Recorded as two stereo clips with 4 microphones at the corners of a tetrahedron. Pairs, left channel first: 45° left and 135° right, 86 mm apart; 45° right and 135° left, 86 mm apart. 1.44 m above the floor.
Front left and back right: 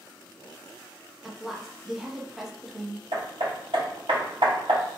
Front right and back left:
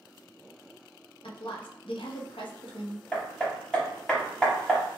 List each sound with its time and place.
1.2 s a woman speaking: 50° right, 0.6 m
3.1 s hammering: 125° right, 1.0 m